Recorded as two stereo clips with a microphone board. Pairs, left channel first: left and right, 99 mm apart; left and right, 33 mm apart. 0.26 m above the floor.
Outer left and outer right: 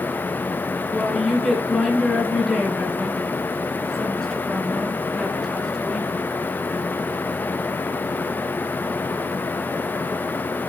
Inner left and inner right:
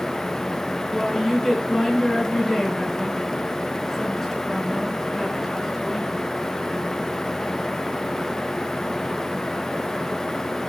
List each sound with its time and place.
0.9 s a woman speaking: 5° left (ahead or behind), 4 m